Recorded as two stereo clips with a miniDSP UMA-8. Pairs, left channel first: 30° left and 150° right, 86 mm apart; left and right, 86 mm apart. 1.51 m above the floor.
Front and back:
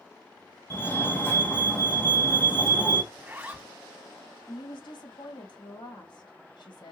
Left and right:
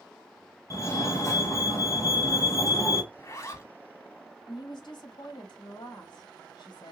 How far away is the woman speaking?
About 1.9 m.